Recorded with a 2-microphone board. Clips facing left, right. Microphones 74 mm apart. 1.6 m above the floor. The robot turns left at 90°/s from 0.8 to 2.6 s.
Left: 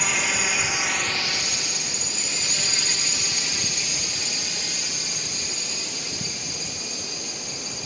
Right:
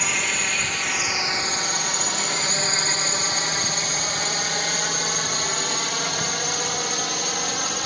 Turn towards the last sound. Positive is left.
turn(degrees=-75)  # may be behind; listen again after turning